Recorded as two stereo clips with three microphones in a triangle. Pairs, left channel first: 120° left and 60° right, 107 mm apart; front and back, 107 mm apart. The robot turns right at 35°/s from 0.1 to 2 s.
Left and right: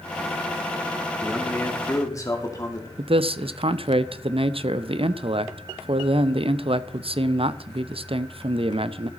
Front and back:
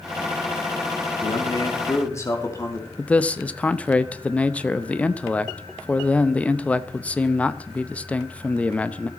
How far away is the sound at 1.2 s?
About 2 m.